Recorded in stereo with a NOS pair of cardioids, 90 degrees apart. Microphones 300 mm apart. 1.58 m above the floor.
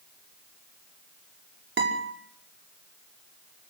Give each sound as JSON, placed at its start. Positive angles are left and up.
{"t": 1.8, "sound": "a guitar", "azimuth_deg": -40, "distance_m": 5.5}